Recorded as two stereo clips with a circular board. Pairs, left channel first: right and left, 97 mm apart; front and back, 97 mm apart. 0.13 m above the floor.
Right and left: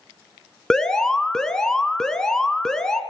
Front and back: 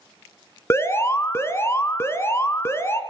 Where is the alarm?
10° right, 1.9 m.